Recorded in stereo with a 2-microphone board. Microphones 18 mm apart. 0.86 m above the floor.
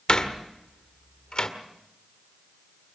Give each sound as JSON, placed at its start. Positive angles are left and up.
{"t": 0.1, "sound": "a door slam", "side_deg": 60, "distance_m": 1.9}